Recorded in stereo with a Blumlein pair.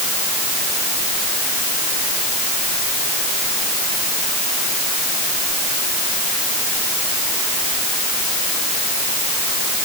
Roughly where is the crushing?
I don't hear crushing.